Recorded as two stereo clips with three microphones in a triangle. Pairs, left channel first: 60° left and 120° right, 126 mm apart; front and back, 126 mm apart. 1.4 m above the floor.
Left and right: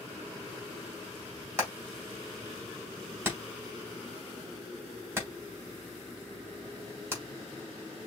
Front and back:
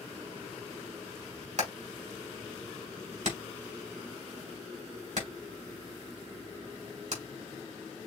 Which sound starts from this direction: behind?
Hammering, at 1.6 s.